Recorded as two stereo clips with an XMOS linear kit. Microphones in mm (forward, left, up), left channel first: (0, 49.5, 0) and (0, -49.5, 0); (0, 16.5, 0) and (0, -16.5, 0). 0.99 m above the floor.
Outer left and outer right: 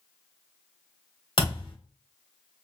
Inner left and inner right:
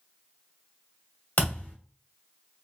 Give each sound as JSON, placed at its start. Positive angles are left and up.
{"t": 1.4, "sound": "a thud", "side_deg": 55, "distance_m": 1.2}